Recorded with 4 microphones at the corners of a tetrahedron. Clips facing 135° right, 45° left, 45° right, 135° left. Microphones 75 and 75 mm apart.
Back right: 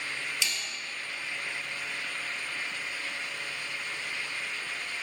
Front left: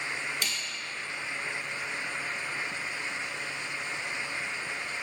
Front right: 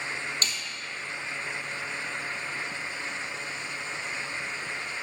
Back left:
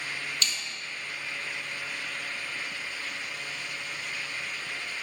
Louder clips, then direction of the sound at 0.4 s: Back right 1 dB, even; 5° left.